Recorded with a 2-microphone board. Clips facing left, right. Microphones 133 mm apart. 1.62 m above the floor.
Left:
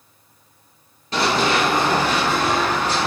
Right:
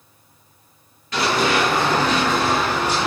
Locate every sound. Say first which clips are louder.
1.1 s running footsteps: even; 30° left (ahead or behind), 1.9 m; by 3.1 s 15° right (ahead or behind), 1.6 m